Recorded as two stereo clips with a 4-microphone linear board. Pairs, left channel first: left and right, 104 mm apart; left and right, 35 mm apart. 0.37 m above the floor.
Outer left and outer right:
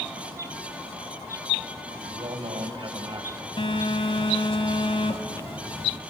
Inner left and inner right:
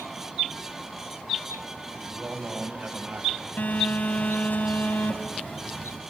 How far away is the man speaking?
About 2.5 m.